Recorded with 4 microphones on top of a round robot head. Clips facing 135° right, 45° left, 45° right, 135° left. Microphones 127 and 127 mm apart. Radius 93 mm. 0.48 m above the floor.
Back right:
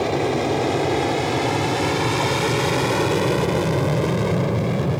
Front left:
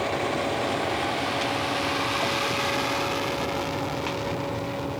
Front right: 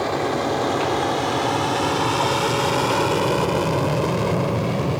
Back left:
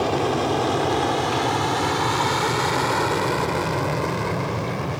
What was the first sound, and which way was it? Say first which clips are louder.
An aircraft: back right 6 dB, back left 1 dB; 150° right.